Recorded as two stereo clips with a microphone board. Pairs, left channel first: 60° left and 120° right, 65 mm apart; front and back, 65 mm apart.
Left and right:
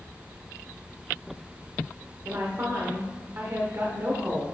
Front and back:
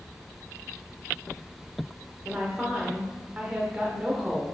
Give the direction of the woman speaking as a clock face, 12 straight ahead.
4 o'clock.